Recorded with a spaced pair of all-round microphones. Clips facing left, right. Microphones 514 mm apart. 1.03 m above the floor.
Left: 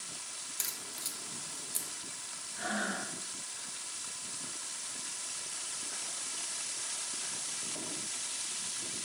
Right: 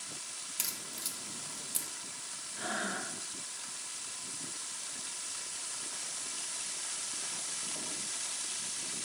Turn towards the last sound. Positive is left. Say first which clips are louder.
# left 2 dB
turn(degrees=0)  # may be behind; listen again after turning